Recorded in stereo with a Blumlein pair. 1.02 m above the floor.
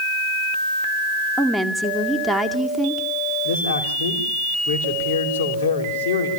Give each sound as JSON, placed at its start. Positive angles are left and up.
{"t": 1.4, "sound": "a woman speaking", "azimuth_deg": 0, "distance_m": 2.0}
{"t": 3.5, "sound": "a man speaking", "azimuth_deg": 60, "distance_m": 5.0}